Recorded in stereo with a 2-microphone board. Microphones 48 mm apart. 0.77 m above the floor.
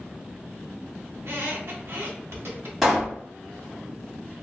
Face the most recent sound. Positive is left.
turn(degrees=-5)  # may be behind; listen again after turning